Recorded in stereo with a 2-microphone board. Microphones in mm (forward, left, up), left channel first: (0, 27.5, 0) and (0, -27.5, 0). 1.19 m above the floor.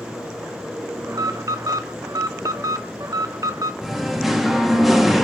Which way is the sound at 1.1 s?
75° right (ahead or behind).